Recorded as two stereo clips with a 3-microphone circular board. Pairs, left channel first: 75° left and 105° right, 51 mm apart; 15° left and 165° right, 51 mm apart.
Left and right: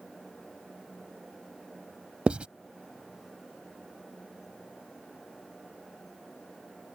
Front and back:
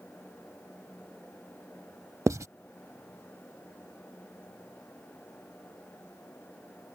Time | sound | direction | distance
2.3 | writing | 170° right | ?